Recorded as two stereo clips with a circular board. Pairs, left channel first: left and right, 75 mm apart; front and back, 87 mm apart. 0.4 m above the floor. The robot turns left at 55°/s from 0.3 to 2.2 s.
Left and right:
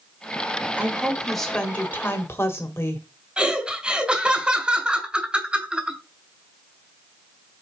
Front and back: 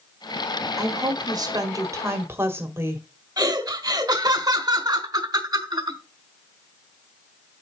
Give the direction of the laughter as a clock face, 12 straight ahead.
5 o'clock.